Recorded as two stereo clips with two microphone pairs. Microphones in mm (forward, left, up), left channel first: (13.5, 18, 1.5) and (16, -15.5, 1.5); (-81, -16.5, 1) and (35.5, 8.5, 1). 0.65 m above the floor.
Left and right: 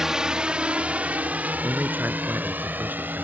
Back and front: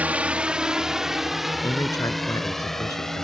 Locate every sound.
0.0 s a drone: 40° right; by 3.2 s 80° right
1.6 s a man speaking: 105° right